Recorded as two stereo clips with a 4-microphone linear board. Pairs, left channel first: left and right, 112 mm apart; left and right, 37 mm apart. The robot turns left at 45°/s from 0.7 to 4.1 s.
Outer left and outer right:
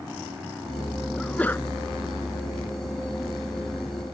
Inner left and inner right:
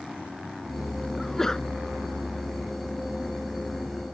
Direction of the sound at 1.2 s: 5° left (ahead or behind).